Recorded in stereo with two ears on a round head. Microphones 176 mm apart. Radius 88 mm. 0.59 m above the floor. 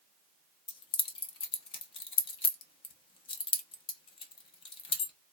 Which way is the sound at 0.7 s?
30° left (ahead or behind).